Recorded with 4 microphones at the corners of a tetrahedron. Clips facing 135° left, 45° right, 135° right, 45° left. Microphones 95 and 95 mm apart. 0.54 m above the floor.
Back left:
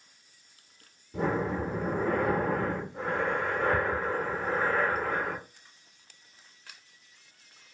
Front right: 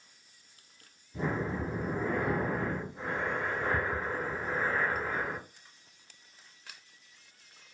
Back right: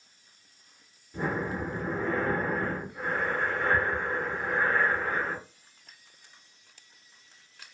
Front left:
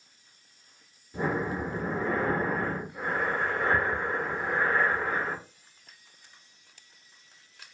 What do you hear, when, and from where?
1.1 s breathing: 125° left, 0.7 m